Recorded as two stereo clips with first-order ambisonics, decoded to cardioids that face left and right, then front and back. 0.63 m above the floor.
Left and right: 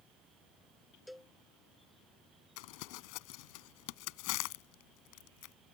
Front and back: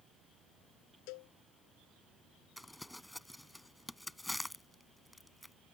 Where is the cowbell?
5° left.